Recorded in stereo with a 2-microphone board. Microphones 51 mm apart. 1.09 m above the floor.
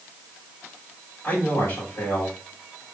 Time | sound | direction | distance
1.2 | a man speaking | 55° left (ahead or behind) | 3 m